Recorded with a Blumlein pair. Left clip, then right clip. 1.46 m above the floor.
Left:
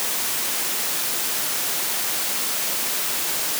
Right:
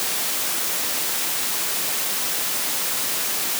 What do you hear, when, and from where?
Only background noise.